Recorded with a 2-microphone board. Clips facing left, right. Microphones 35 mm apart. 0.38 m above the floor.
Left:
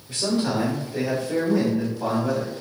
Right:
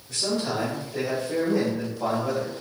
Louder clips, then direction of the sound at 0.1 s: Left 3 dB; 30° left (ahead or behind).